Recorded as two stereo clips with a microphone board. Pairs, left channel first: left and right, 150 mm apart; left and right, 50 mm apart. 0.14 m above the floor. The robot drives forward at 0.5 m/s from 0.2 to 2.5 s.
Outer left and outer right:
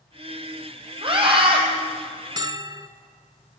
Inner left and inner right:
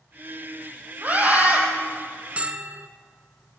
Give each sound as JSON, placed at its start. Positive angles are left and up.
{"t": 1.0, "sound": "a scream", "side_deg": -35, "distance_m": 3.5}
{"t": 2.4, "sound": "a bell", "side_deg": -30, "distance_m": 0.7}